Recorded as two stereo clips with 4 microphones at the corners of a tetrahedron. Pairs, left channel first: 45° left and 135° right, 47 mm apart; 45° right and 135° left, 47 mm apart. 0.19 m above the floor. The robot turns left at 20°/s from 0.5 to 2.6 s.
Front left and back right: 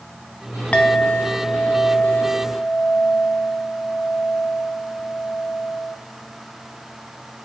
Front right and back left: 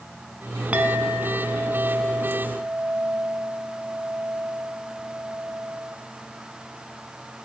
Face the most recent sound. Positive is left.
turn(degrees=60)